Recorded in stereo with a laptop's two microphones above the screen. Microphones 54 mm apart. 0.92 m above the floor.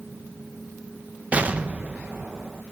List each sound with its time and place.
1.3 s an explosion: 25° right (ahead or behind), 0.7 m